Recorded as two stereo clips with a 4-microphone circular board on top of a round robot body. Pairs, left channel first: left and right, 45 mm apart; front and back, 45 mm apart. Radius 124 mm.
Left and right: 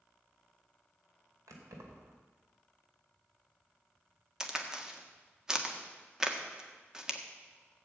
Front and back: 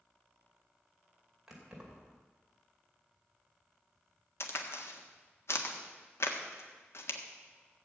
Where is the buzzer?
I don't hear a buzzer.